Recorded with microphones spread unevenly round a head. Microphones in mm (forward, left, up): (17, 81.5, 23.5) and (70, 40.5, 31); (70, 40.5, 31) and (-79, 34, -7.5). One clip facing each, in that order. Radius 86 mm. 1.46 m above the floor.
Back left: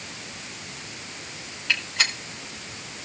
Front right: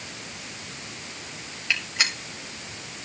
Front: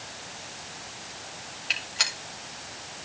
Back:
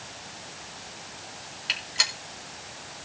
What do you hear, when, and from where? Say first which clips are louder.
1.7 s a gunshot: back left 1 dB, back 1 dB; 155° right, 4 m